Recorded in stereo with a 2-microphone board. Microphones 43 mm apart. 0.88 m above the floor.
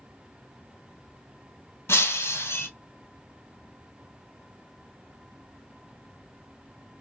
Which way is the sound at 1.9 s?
70° left (ahead or behind).